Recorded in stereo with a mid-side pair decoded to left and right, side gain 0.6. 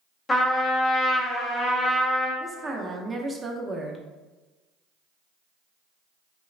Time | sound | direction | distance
0.3 | a trumpet | 25° left | 0.7 m
2.4 | a woman speaking | 20° right | 0.6 m